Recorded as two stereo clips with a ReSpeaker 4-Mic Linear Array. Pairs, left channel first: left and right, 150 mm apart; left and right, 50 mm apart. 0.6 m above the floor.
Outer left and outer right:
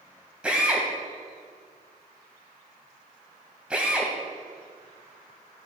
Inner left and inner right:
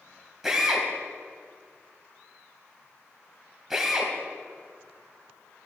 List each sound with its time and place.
0.4 s a drill: 5° right (ahead or behind), 1.7 m